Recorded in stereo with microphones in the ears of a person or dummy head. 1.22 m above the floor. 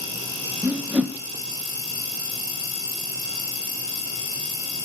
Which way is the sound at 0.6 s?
5° right (ahead or behind).